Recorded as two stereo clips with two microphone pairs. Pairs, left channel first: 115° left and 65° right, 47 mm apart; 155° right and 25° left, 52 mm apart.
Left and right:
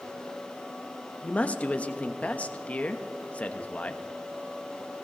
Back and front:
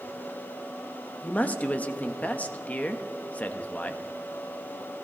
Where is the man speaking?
160° left, 0.9 m.